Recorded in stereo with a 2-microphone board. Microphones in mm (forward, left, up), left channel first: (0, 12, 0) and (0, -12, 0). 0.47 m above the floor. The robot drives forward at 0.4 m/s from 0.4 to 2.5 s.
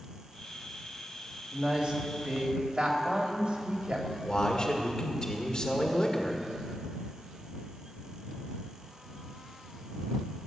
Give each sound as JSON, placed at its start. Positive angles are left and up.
{"t": 1.5, "sound": "a woman speaking", "side_deg": -50, "distance_m": 2.5}
{"t": 4.2, "sound": "a man speaking", "side_deg": 35, "distance_m": 1.8}